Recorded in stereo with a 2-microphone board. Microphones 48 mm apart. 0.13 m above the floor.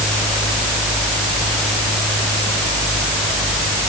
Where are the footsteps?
I don't hear footsteps.